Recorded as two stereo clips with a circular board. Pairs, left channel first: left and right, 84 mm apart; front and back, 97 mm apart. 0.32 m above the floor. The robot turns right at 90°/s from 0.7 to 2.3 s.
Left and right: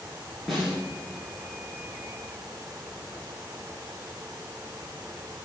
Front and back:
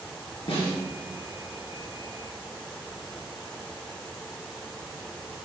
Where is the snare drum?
Straight ahead, 4 m; by 0.8 s 5° left, 4 m.